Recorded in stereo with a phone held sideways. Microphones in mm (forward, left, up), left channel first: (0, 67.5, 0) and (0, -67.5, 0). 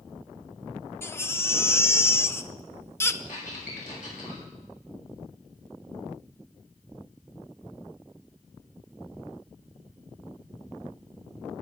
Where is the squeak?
80° left, 7 m.